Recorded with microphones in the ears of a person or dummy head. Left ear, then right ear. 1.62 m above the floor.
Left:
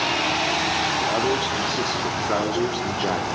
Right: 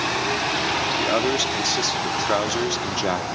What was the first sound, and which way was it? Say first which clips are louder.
A man speaking: right 1 dB; 85° right.